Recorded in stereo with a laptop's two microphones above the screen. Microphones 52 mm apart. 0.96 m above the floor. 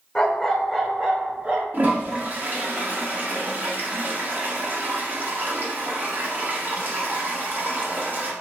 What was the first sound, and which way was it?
A dog barking, 15° left (ahead or behind).